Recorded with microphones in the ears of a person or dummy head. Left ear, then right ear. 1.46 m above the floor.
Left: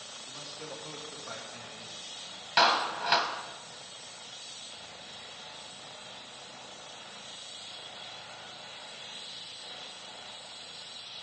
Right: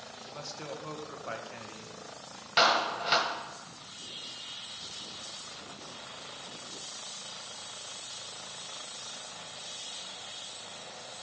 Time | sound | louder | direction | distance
0.2 | a man speaking | right 3 dB | 80° right | 1.8 m
2.6 | a clap | even | 5° left (ahead or behind) | 1.0 m